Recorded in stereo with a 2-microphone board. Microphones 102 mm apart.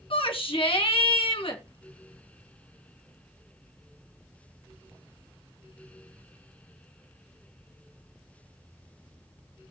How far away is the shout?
About 3 m.